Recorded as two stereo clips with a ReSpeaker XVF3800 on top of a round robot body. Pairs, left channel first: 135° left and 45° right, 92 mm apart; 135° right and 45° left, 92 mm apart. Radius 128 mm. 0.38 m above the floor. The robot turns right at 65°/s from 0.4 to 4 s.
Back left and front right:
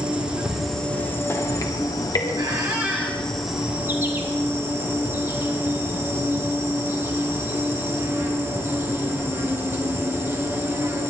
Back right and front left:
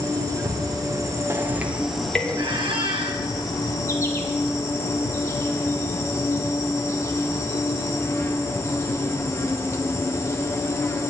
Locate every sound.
0.0 s an insect: 30° left, 2 m; by 11.1 s 95° right, 2 m
2.4 s a squeak: 5° right, 2.5 m; by 3.2 s 50° left, 2.5 m